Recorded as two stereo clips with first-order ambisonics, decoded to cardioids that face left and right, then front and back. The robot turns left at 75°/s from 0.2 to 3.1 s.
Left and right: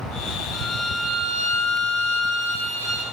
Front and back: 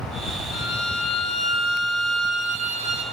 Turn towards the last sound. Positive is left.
turn(degrees=175)